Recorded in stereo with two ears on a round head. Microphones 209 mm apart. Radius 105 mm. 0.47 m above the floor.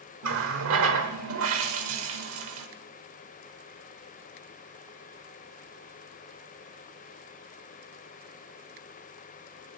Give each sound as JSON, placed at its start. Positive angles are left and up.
{"t": 0.2, "sound": "a running tap", "side_deg": -60, "distance_m": 1.1}